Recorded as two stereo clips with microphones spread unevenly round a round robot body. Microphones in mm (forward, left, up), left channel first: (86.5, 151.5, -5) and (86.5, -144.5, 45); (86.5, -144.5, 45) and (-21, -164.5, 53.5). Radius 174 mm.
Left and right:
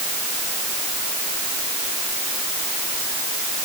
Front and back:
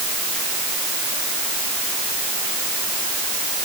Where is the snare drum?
No snare drum in this recording.